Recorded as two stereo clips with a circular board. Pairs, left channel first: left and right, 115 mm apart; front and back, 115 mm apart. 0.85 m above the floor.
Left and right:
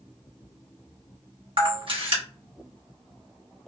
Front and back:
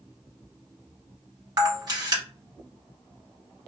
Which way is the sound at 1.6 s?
130° right.